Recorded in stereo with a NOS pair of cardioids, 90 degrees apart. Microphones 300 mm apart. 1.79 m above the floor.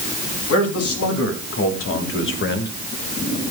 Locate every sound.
0.5 s a man speaking: 55° left, 5 m; by 2.7 s 35° left, 2.5 m